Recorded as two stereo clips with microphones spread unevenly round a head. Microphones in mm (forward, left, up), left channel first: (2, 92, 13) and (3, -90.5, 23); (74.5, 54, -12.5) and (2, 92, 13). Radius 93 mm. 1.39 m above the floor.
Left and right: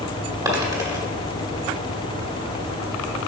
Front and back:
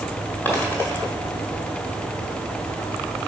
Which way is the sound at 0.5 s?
115° right.